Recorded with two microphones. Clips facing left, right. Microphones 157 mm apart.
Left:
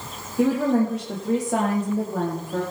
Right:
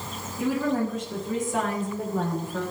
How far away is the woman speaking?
About 7 m.